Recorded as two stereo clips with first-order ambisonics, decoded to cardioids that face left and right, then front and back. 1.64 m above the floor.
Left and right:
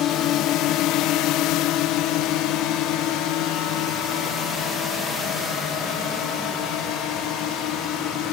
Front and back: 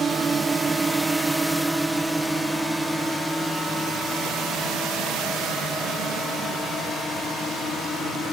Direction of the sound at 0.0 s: 115° left.